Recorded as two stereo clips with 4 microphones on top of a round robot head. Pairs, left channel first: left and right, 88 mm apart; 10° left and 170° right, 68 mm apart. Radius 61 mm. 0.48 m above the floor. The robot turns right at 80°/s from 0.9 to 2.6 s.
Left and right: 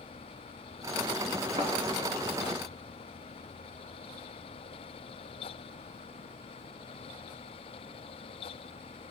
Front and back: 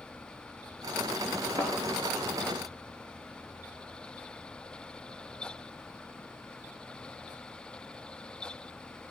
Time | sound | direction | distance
1.6 | a thud | 140° right | 3.5 m